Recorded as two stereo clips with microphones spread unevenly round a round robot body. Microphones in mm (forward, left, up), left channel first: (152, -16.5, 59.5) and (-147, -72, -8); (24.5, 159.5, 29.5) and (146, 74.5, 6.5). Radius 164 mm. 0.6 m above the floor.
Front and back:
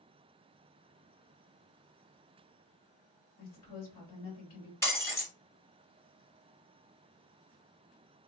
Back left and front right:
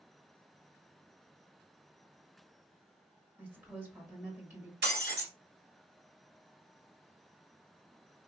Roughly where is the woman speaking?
Ahead left.